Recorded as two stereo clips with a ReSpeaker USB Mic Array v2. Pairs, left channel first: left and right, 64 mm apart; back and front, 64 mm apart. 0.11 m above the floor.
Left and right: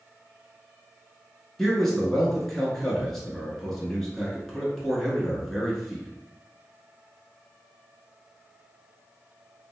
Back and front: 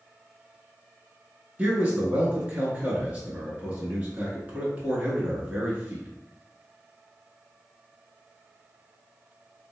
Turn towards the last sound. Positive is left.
turn(degrees=10)